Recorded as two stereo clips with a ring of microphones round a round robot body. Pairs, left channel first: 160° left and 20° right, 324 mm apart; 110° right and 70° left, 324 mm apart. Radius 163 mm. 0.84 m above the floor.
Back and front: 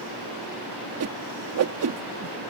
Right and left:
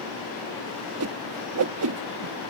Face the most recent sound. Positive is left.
turn(degrees=25)